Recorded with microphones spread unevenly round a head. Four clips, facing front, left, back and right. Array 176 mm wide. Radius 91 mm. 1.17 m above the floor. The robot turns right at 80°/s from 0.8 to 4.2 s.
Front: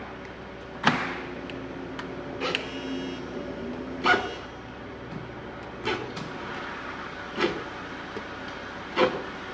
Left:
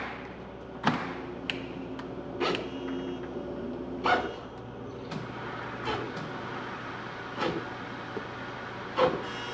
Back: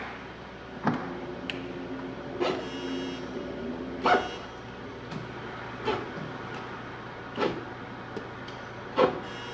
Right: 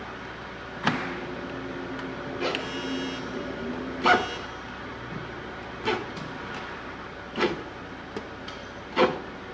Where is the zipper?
170° left, 5 m; by 9.2 s 45° right, 5 m.